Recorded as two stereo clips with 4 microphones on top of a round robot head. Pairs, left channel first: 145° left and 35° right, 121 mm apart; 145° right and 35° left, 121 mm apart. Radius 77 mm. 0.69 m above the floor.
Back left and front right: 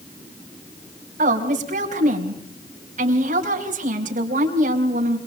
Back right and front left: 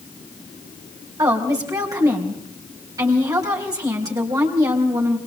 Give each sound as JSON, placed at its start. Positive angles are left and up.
{"t": 1.2, "sound": "a woman speaking", "azimuth_deg": -25, "distance_m": 4.0}